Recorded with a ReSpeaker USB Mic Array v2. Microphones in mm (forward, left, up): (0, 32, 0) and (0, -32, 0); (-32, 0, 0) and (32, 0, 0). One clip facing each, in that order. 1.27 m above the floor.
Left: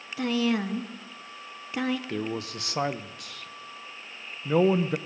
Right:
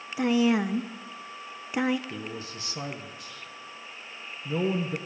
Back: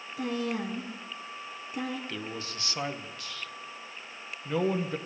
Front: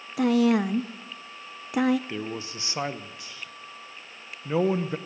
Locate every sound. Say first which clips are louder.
0.2 s a woman speaking: right 3 dB, front 11 dB; 15° right, 0.7 m
2.1 s a man speaking: left 6 dB, front 4 dB; 70° left, 0.9 m